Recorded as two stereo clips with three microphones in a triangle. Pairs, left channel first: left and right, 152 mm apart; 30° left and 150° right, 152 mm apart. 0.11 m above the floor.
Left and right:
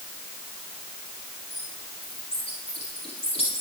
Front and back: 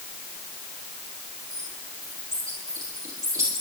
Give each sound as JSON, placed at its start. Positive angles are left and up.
{"t": 1.5, "sound": "a bird", "azimuth_deg": 140, "distance_m": 7.0}